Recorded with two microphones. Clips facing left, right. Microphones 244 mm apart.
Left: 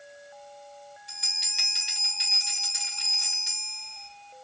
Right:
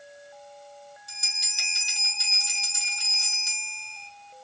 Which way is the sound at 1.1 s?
70° left (ahead or behind).